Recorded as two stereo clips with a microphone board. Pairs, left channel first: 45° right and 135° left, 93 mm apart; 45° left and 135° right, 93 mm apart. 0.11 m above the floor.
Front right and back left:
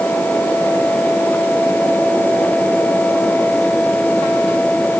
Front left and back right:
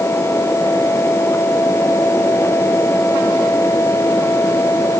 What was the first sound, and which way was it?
Only background noise.